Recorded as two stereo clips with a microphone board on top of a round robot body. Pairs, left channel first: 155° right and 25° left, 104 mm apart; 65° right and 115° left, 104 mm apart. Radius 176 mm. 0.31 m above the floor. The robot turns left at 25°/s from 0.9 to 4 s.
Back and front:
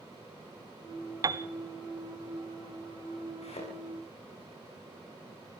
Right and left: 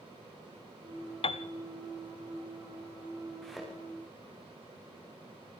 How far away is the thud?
About 6.5 m.